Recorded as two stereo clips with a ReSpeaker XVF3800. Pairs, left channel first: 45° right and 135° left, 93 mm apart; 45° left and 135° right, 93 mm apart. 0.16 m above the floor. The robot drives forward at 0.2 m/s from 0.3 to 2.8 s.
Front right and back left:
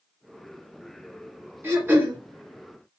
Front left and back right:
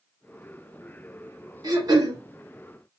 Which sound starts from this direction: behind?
Throat clearing, at 1.6 s.